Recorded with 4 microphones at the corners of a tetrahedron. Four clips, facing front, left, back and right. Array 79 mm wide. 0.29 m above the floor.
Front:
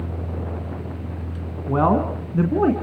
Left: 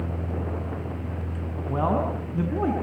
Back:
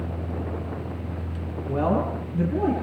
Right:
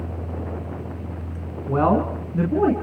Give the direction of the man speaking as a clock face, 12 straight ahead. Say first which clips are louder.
Right 5 dB, front 5 dB; 1 o'clock.